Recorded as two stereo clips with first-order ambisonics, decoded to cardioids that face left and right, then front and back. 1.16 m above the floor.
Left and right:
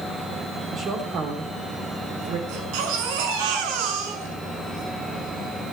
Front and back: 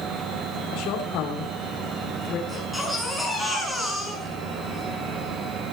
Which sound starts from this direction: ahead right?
A woman speaking, at 0.7 s.